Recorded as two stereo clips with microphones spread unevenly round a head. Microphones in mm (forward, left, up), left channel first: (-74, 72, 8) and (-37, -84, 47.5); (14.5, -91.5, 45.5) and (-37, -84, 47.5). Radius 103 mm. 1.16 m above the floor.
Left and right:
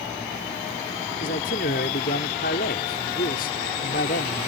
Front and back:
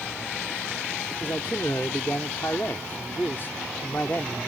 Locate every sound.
1.2 s a man speaking: 60° left